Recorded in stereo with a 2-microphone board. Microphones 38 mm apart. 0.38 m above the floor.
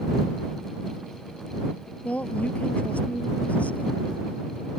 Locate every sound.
2.0 s a woman speaking: 35° left (ahead or behind); by 4.2 s 40° left (ahead or behind)